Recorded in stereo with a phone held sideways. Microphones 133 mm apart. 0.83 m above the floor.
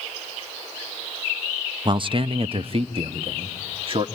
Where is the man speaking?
35° right (ahead or behind), 0.6 m; by 4.0 s 45° right (ahead or behind), 1.6 m.